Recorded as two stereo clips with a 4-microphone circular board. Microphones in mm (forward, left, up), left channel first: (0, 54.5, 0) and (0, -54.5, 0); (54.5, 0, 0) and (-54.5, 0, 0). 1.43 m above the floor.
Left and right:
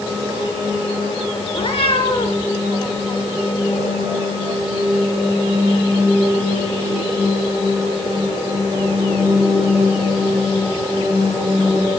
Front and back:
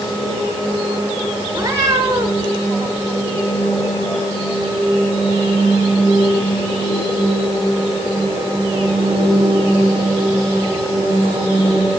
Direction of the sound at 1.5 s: 120° left.